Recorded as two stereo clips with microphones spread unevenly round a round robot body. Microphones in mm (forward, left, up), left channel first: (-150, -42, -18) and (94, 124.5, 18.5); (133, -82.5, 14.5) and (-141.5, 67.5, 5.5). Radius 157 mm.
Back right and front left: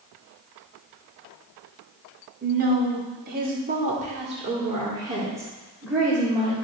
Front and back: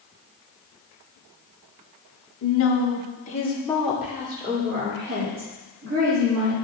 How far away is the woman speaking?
About 1.7 m.